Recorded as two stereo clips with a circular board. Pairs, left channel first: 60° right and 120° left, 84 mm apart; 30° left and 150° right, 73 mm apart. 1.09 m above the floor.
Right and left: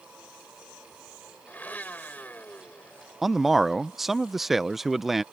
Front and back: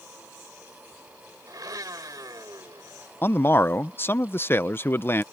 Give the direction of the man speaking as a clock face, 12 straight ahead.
11 o'clock.